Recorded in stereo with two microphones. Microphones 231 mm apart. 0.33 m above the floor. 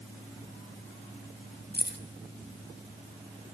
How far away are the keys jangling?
About 0.9 m.